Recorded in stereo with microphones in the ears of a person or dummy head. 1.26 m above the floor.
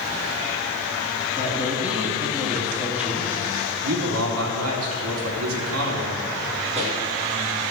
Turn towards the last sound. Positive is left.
turn(degrees=-35)  # may be behind; listen again after turning